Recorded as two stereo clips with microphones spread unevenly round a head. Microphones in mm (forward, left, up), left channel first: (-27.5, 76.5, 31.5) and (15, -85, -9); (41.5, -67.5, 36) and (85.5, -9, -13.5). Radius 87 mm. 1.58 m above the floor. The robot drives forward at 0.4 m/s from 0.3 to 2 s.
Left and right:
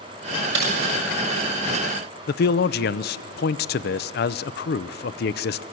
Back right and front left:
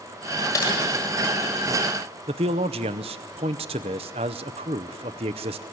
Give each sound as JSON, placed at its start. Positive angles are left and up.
{"t": 0.5, "sound": "typing on a keyboard", "azimuth_deg": -95, "distance_m": 6.5}
{"t": 2.3, "sound": "a man speaking", "azimuth_deg": 90, "distance_m": 0.6}